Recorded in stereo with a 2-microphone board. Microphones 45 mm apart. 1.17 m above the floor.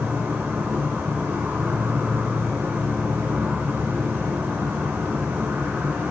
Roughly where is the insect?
Right.